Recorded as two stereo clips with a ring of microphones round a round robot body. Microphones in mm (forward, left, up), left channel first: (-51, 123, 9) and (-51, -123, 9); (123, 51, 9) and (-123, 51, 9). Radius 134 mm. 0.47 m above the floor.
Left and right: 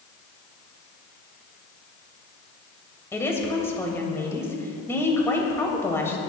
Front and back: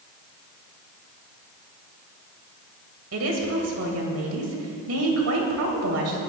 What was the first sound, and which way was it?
A woman speaking, 170° left.